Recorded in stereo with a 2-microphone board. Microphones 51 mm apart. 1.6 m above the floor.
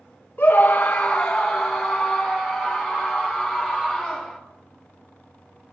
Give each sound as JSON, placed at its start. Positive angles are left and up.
{"t": 0.4, "sound": "a scream", "side_deg": 40, "distance_m": 0.6}